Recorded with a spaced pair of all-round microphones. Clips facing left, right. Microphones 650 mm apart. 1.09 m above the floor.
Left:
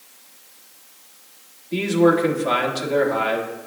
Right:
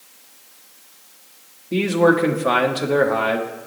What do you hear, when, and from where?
1.7 s a man speaking: 75° right (ahead or behind), 1.9 m